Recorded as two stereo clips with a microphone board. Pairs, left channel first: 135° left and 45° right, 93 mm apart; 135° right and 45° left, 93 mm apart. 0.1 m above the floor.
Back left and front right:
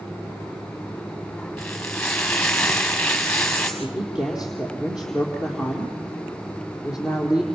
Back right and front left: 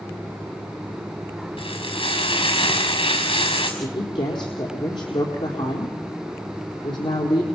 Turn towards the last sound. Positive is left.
turn(degrees=-125)